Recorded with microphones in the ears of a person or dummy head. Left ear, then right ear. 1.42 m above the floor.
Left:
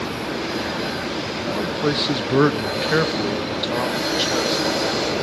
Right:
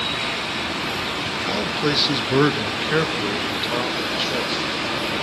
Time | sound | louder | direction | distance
1.5 | a man speaking | even | 25° right (ahead or behind) | 0.8 m